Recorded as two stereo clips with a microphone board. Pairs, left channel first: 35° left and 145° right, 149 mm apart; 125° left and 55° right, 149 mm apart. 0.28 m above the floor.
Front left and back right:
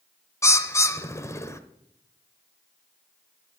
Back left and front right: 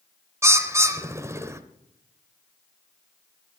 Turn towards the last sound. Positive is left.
turn(degrees=-10)